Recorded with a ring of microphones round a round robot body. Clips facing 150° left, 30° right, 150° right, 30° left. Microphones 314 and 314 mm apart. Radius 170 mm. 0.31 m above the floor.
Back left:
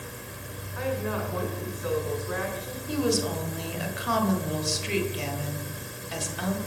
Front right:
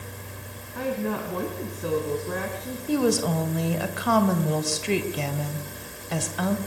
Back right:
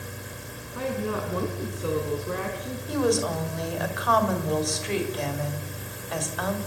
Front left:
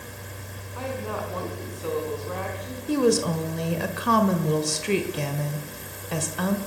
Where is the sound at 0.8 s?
80° right, 3.5 m.